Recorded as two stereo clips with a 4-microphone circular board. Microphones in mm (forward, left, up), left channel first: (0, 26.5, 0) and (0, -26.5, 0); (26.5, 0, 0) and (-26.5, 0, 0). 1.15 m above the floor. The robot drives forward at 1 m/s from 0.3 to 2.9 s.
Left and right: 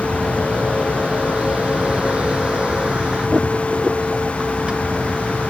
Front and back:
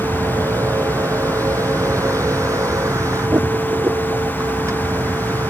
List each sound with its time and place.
0.0 s a vehicle: 160° right; by 5.5 s 165° right